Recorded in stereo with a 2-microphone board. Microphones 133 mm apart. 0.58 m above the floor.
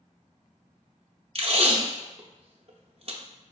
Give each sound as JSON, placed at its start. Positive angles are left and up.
{"t": 1.4, "sound": "tape being pulled", "side_deg": -50, "distance_m": 0.6}